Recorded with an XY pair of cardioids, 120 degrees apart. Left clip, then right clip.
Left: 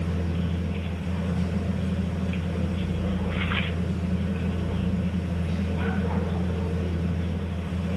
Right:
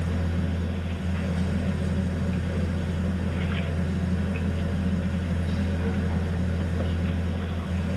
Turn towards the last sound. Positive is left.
turn(degrees=-50)